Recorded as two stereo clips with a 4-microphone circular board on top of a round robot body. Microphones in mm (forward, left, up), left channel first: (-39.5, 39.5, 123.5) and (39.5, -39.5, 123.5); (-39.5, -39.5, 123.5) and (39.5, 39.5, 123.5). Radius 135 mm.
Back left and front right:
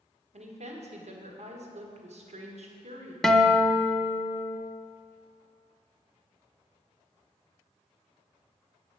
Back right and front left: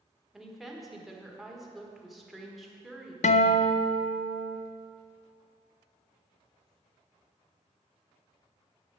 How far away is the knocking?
No knocking in this recording.